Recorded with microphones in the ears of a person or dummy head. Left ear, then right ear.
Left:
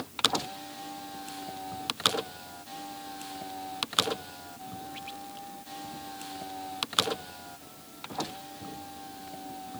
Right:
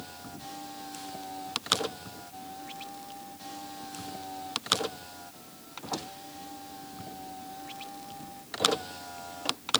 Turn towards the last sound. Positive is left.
No sound to turn to.